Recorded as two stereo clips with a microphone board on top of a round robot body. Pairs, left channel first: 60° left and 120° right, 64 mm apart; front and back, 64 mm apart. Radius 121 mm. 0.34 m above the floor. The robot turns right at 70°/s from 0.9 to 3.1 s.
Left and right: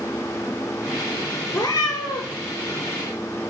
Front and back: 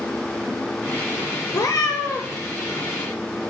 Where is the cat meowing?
30° left, 1.0 m; by 2.4 s 85° left, 1.0 m.